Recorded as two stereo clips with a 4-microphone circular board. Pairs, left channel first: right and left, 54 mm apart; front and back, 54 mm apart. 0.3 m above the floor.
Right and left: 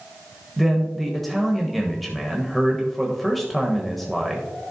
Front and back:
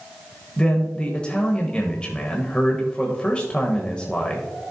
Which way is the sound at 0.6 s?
10° right.